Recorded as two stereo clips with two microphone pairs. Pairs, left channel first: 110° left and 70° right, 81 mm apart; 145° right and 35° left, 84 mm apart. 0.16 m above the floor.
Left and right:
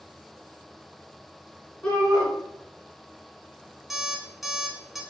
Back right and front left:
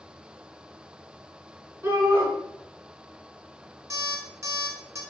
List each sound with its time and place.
1.8 s a shout: 45° left, 1.6 m
3.9 s an alarm clock: 15° left, 0.5 m